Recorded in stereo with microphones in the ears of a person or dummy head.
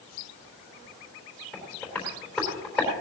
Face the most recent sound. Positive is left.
turn(degrees=5)  # may be behind; listen again after turning